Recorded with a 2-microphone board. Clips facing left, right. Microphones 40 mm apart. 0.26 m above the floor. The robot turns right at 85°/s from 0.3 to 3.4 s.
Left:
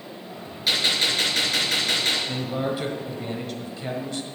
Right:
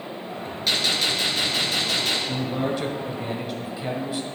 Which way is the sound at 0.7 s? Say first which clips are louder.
Left 1 dB; 5° left.